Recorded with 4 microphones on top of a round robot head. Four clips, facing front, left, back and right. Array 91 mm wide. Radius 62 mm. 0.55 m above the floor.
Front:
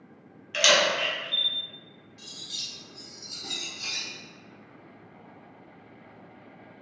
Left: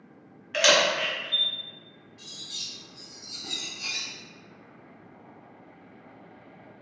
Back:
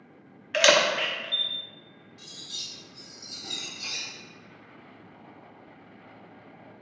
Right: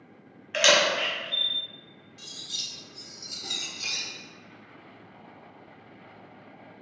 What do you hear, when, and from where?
0.5 s a camera shutter: 170° right, 0.7 m
2.2 s cutlery clinking: 80° right, 1.0 m